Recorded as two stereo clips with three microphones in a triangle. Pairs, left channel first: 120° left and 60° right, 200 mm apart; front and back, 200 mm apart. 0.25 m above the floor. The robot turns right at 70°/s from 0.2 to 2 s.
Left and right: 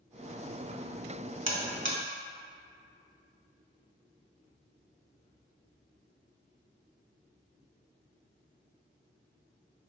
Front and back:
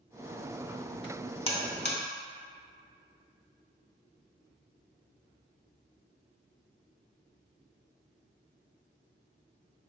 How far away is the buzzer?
About 0.6 m.